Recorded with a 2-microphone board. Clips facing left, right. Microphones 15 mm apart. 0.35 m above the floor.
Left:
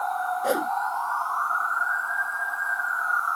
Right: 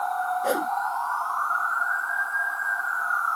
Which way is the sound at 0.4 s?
5° left (ahead or behind).